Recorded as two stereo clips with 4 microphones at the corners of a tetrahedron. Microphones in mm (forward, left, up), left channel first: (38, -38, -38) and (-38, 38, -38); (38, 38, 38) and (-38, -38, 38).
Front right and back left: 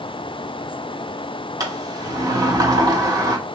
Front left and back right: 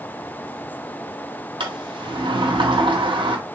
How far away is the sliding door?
About 0.6 m.